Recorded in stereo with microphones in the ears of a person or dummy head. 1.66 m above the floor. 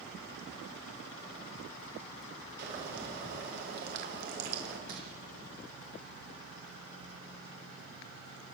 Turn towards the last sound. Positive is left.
turn(degrees=-55)  # may be behind; listen again after turning